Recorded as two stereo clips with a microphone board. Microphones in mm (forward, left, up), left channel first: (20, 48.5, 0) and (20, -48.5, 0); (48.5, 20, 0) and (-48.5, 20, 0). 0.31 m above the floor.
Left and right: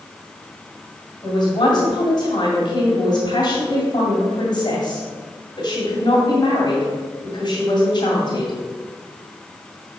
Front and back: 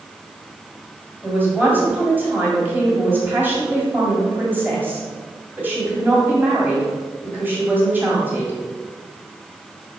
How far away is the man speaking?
About 2 m.